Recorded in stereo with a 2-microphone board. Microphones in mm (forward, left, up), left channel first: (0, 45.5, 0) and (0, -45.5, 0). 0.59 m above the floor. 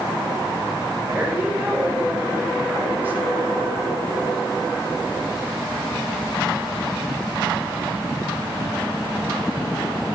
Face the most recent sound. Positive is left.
turn(degrees=-20)  # may be behind; listen again after turning